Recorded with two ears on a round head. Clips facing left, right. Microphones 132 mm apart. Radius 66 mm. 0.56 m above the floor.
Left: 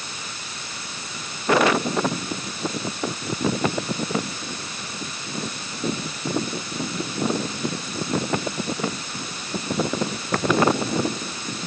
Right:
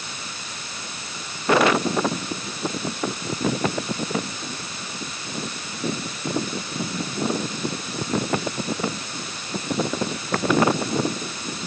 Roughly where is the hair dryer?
I don't hear a hair dryer.